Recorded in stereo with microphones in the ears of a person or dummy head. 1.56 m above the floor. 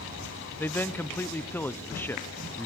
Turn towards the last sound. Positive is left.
turn(degrees=10)  # may be behind; listen again after turning